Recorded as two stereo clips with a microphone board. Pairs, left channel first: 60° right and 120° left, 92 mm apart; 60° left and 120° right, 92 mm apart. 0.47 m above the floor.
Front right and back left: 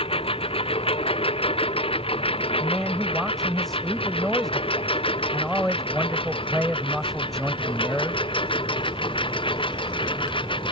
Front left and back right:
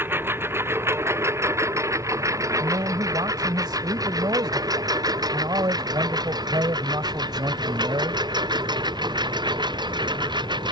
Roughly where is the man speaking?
Behind right.